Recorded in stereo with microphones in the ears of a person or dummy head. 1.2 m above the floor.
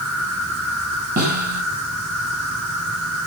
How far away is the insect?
About 4 m.